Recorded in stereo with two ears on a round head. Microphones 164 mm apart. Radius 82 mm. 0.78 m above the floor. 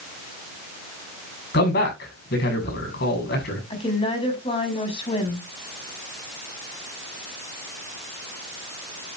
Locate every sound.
1.5 s a man speaking: 65° left (ahead or behind), 7 m
3.7 s a woman speaking: 30° left (ahead or behind), 6.5 m